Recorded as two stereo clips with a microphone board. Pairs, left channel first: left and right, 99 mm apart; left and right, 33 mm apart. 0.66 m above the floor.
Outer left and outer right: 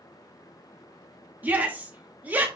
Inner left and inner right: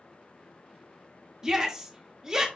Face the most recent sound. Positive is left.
turn(degrees=-20)  # may be behind; listen again after turning